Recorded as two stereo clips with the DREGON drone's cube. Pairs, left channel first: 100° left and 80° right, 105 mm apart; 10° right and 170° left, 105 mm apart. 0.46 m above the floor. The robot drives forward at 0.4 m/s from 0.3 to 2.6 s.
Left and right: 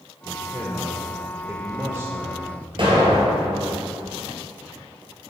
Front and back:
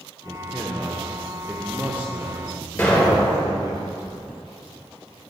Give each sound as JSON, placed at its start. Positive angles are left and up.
{"t": 0.2, "sound": "a man speaking", "azimuth_deg": -50, "distance_m": 0.9}
{"t": 2.8, "sound": "an explosion", "azimuth_deg": -85, "distance_m": 2.0}